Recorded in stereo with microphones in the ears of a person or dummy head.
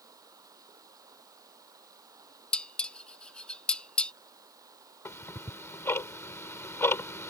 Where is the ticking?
15° left (ahead or behind).